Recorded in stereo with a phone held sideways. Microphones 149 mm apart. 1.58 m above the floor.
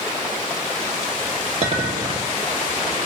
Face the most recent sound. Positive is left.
turn(degrees=-50)  # may be behind; listen again after turning